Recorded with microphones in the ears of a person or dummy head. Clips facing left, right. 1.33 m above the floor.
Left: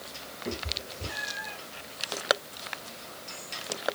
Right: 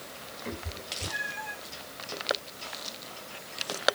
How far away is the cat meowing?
About 2.5 m.